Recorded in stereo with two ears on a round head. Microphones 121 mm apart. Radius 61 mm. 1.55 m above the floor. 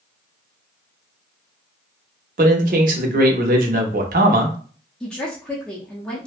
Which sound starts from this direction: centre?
A woman speaking, at 5.0 s.